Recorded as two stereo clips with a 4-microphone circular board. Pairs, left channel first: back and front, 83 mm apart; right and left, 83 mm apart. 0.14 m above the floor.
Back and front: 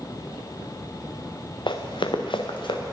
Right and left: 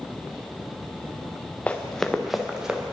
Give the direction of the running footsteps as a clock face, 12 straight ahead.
5 o'clock.